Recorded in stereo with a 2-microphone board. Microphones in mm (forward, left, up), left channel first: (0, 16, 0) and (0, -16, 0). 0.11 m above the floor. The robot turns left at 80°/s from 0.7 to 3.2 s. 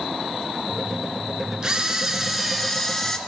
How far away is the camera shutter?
About 1.2 m.